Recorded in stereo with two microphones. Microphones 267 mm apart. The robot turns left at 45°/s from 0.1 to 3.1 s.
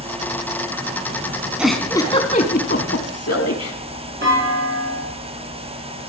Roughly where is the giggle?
Centre.